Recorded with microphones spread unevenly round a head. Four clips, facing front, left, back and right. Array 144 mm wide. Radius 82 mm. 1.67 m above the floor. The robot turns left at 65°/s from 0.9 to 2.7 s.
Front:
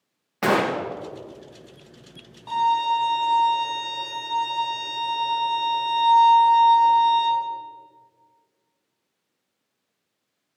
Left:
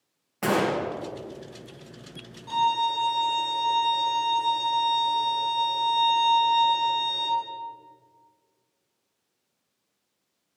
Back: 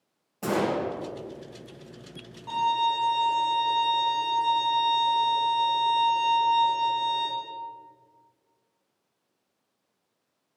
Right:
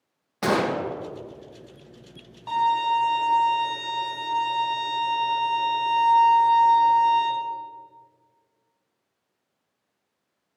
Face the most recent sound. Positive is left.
turn(degrees=-80)